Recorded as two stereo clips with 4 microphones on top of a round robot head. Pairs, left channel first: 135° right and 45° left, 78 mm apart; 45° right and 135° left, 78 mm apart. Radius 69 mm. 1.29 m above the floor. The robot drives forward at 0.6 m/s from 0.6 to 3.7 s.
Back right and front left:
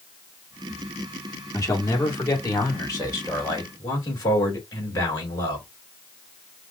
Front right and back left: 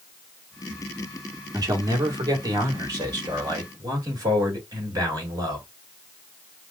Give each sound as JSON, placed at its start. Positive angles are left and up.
{"t": 1.5, "sound": "a man speaking", "azimuth_deg": 175, "distance_m": 1.6}